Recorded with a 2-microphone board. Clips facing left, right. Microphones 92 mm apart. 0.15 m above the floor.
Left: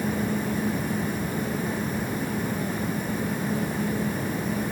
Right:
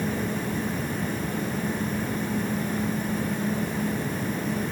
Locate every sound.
Only background noise.